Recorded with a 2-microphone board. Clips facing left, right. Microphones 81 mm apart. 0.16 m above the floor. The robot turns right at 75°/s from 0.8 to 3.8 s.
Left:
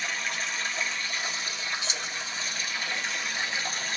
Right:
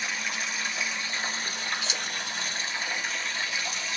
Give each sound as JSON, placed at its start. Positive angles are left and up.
{"t": 0.0, "sound": "running water", "azimuth_deg": 180, "distance_m": 1.1}
{"t": 1.8, "sound": "keys jangling", "side_deg": 30, "distance_m": 1.5}